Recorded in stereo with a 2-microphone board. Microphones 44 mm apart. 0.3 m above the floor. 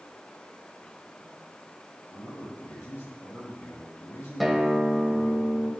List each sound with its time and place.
2.1 s a man speaking: 80° left, 7 m
4.4 s a guitar: centre (ahead or behind), 1.6 m